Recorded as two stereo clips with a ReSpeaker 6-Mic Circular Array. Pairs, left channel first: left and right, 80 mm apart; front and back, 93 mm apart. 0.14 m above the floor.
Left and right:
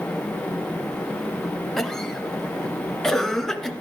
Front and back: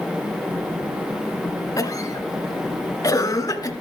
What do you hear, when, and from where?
1.8 s a cough: 10° left, 1.5 m